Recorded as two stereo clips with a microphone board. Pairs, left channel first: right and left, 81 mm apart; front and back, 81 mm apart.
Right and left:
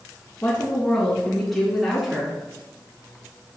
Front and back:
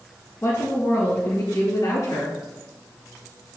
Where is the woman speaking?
35° right, 2 m; by 2.4 s 15° left, 2.5 m.